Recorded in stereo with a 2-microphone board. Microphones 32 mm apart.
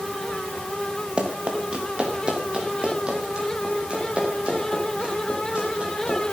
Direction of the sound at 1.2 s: 30° right (ahead or behind).